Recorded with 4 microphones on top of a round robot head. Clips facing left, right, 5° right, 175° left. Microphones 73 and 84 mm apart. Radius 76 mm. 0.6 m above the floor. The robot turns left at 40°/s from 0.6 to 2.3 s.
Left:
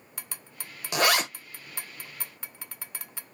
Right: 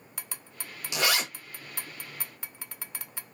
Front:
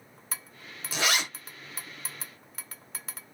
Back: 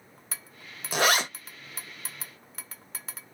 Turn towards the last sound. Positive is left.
turn(degrees=80)